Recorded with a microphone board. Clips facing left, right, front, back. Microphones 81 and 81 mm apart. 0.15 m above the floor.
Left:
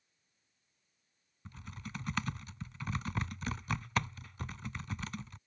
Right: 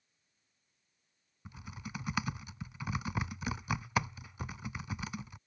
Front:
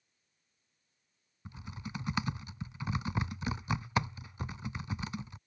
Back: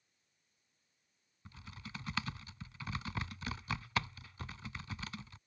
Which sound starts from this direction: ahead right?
Typing on a keyboard, at 1.4 s.